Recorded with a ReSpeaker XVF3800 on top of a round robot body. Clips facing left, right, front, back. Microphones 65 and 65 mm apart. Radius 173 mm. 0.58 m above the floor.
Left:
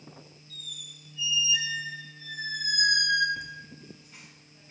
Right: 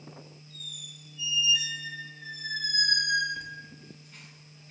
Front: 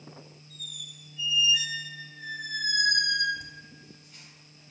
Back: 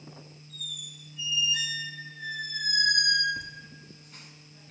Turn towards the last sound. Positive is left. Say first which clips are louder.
# even, back 4 dB
turn(degrees=170)